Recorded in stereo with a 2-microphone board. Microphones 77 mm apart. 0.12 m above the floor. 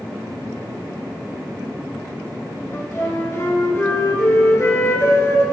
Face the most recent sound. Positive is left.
turn(degrees=35)  # may be behind; listen again after turning